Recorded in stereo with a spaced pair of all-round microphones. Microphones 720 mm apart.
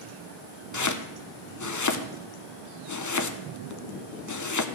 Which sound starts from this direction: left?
Chopping, at 0.7 s.